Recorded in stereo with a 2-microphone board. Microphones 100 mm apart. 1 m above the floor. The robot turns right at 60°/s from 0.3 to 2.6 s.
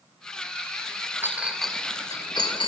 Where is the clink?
25° right (ahead or behind), 2 m; by 2.7 s 60° left (ahead or behind), 2 m.